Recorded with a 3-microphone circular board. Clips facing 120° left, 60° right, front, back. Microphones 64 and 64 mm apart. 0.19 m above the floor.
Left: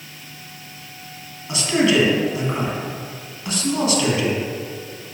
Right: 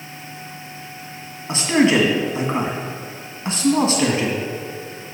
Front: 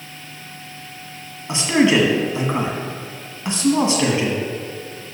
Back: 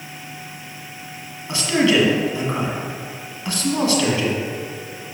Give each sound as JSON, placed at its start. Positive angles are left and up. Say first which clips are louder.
{"t": 1.5, "sound": "a man speaking", "louder": "right 2 dB, front 2 dB", "azimuth_deg": -45, "distance_m": 1.5}